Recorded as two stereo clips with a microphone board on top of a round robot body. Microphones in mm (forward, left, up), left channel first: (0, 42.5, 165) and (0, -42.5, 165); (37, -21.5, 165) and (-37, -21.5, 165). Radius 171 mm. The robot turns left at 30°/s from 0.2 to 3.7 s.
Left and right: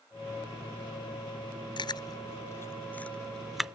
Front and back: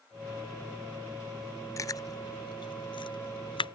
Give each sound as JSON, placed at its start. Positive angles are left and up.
{"t": 1.8, "sound": "chewing", "azimuth_deg": 55}